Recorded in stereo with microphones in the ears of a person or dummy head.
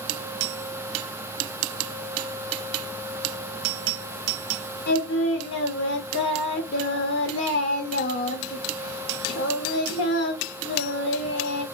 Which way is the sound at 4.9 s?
65° left (ahead or behind).